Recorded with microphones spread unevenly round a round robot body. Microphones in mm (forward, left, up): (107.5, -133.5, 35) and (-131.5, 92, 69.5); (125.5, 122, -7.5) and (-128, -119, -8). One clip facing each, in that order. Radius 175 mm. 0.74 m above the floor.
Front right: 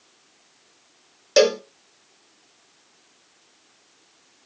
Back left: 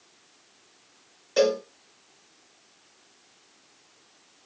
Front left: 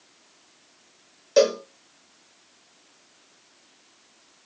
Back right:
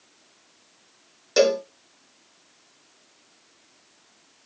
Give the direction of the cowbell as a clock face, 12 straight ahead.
2 o'clock.